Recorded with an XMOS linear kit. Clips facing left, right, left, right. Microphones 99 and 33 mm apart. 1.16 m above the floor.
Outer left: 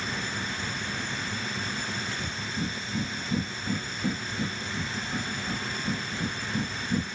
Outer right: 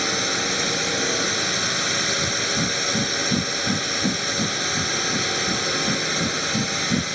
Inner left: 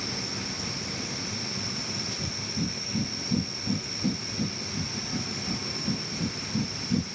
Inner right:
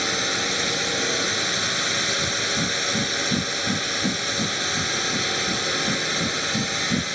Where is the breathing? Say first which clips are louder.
Outer right 8 dB, inner right 9 dB; 25° right (ahead or behind).